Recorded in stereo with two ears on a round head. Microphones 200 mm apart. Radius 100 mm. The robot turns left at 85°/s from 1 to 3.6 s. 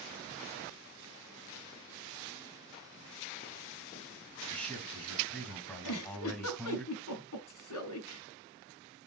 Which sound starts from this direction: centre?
A man speaking, at 4.5 s.